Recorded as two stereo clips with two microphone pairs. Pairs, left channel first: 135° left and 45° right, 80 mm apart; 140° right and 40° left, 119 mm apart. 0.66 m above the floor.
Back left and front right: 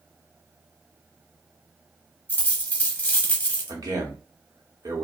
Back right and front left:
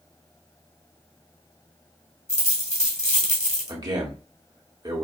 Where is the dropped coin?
155° right, 1.2 m.